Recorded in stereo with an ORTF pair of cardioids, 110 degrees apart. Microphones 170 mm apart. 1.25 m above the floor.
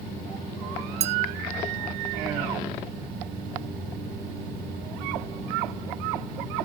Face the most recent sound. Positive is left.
turn(degrees=-40)